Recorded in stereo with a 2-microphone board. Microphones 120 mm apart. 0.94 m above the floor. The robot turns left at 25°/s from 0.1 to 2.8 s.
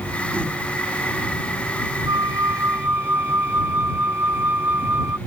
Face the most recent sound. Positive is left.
turn(degrees=-20)  # may be behind; listen again after turning